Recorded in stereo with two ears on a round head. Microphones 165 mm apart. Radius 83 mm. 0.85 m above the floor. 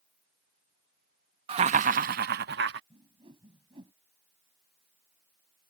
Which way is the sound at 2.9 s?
25° right (ahead or behind).